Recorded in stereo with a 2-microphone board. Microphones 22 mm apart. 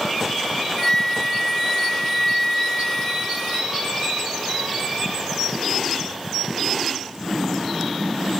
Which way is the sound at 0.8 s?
15° left (ahead or behind).